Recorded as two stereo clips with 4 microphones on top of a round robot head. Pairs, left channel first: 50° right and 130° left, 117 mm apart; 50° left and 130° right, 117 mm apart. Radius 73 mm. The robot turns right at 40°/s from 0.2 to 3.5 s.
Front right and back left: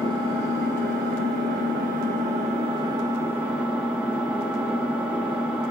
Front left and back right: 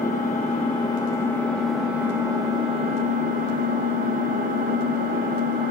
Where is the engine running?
80° left, 0.8 m; by 5.7 s 150° right, 0.8 m.